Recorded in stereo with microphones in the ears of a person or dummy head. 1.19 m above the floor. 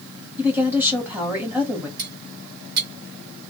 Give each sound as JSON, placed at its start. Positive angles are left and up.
{"t": 0.4, "sound": "a woman speaking", "side_deg": -10, "distance_m": 1.4}
{"t": 2.0, "sound": "cutlery clinking", "side_deg": -50, "distance_m": 1.0}